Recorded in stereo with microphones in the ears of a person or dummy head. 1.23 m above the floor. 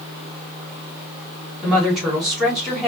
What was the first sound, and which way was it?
A woman speaking, centre (ahead or behind).